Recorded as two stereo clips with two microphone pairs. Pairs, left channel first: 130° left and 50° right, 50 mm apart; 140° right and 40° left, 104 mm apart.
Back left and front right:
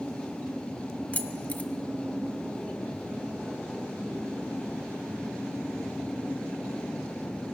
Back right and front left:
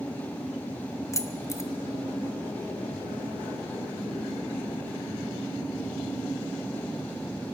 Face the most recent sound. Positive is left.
turn(degrees=170)